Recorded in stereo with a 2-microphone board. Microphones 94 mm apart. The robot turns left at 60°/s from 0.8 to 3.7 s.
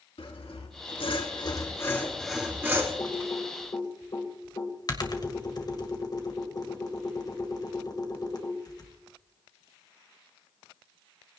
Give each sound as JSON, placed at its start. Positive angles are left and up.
{"t": 0.2, "sound": "sawing", "azimuth_deg": 90, "distance_m": 3.0}
{"t": 3.0, "sound": "typing on a keyboard", "side_deg": 55, "distance_m": 2.0}